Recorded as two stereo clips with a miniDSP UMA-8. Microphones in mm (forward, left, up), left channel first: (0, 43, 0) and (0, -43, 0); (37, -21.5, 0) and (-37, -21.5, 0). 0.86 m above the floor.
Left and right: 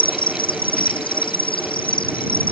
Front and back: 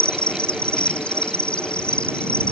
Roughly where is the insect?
Left.